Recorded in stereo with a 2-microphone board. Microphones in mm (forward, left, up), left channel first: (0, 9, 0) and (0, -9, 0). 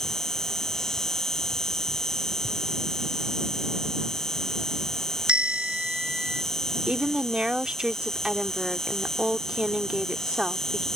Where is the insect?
30° left (ahead or behind).